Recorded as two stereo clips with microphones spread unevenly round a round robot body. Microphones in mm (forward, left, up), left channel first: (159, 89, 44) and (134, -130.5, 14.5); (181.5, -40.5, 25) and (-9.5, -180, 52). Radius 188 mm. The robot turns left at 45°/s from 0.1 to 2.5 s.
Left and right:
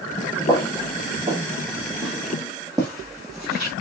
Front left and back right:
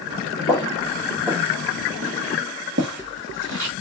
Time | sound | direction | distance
0.5 | footsteps | 115° left | 0.8 m